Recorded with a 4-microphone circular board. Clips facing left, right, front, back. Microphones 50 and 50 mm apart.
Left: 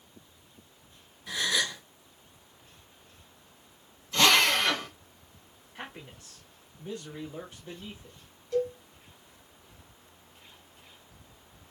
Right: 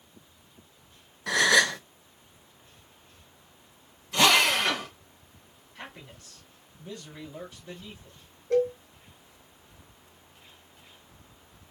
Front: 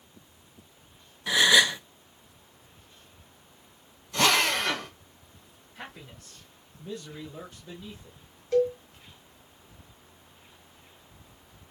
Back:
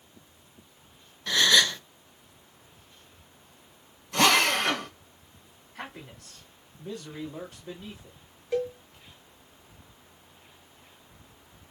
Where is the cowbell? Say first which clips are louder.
Right 5 dB, front 5 dB; 105° right, 1.3 m.